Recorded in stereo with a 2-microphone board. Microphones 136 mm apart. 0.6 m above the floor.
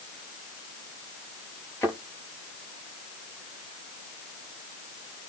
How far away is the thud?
About 6 m.